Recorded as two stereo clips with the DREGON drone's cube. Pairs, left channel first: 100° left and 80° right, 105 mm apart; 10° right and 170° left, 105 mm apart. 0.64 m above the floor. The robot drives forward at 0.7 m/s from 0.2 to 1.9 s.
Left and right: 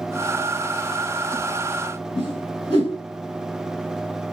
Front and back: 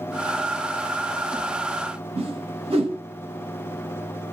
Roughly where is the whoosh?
Behind left.